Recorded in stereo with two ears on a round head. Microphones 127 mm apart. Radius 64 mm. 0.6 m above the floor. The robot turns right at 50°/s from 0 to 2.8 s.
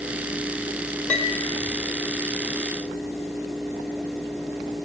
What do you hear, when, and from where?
1.1 s a piano: 15° left (ahead or behind), 1.0 m; by 1.4 s 5° right (ahead or behind), 1.0 m